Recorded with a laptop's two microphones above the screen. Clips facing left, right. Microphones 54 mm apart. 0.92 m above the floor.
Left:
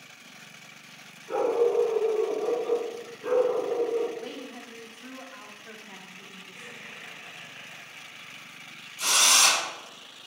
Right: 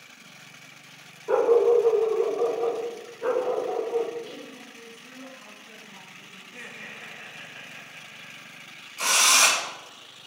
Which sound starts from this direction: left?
A woman speaking, at 4.2 s.